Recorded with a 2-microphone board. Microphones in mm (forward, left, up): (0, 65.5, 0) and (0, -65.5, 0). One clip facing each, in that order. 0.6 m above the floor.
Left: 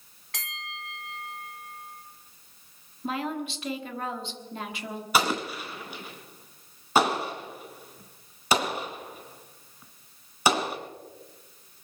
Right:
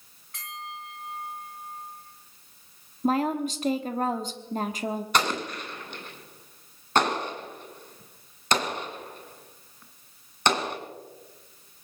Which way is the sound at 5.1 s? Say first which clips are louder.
Left 4 dB; 5° left (ahead or behind).